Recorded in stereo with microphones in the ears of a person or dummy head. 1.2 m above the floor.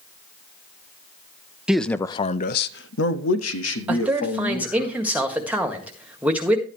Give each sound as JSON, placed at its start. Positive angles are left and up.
{"t": 1.7, "sound": "a man speaking", "side_deg": 0, "distance_m": 0.6}
{"t": 3.9, "sound": "a man speaking", "side_deg": -5, "distance_m": 1.7}